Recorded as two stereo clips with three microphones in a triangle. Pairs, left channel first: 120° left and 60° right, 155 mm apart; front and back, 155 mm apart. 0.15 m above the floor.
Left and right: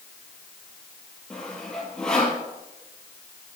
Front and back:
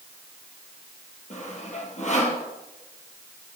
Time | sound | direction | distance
1.3 | sawing | 35° left | 2.5 m